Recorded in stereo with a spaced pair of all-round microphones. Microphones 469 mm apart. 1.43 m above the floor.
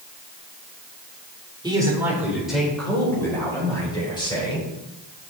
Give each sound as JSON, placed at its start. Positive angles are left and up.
{"t": 1.6, "sound": "a man speaking", "side_deg": -10, "distance_m": 3.5}